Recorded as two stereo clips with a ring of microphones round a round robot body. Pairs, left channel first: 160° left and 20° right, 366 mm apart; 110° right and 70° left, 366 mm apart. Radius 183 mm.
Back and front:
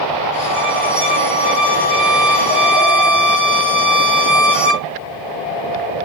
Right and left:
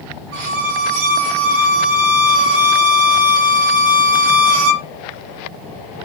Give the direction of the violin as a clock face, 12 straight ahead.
10 o'clock.